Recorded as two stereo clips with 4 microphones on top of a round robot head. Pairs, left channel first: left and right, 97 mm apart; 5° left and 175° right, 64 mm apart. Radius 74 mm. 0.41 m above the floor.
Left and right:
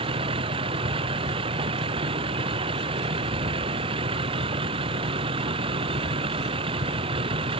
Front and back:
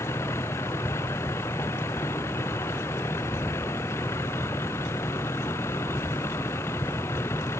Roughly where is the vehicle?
Ahead right.